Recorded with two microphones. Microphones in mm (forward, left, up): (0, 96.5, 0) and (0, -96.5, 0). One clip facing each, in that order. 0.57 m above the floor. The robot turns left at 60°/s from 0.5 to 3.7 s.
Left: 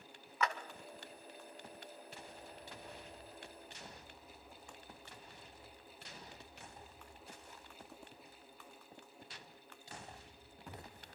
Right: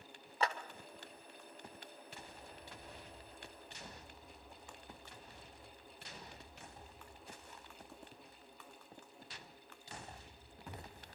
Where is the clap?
30° right (ahead or behind), 1.3 m; by 0.5 s 35° right (ahead or behind), 1.3 m.